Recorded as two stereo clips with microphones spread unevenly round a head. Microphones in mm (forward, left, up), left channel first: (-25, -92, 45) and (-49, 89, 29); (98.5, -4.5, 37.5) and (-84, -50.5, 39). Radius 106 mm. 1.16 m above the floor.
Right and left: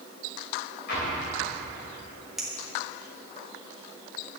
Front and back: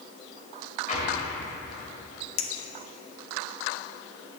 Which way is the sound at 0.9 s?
40° right.